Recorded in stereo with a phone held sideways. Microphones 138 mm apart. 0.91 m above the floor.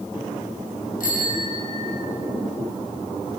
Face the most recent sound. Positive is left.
turn(degrees=70)  # may be behind; listen again after turning